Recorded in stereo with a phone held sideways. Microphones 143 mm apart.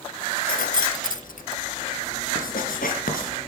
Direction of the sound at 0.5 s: 75° left (ahead or behind).